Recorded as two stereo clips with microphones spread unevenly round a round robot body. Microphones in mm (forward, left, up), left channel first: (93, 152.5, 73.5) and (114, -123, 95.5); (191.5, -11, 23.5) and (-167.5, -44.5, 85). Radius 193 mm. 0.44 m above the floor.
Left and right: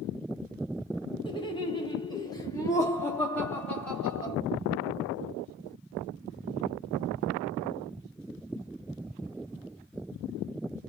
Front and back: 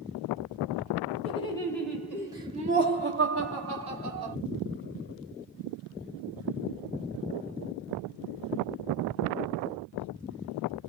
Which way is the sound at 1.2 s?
45° left.